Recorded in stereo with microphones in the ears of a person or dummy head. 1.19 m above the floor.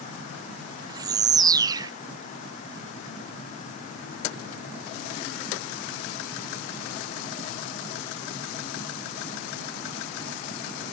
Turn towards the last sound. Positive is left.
turn(degrees=-20)  # may be behind; listen again after turning